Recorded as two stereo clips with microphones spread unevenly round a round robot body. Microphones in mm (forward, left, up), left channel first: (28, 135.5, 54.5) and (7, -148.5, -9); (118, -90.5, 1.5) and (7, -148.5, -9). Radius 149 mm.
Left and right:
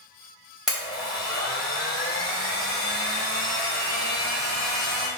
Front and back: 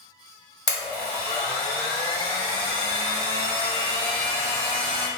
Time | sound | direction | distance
0.7 | a blender | 20° right | 1.7 m